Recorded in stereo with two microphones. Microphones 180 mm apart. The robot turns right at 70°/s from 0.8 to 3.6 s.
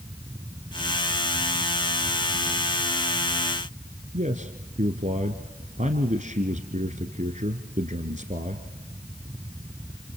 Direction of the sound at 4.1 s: 45° right (ahead or behind).